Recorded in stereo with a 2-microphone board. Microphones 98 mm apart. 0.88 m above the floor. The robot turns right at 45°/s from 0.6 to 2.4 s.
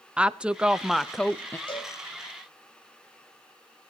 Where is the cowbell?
55° left (ahead or behind), 3 m; by 1.9 s 45° left (ahead or behind), 3 m.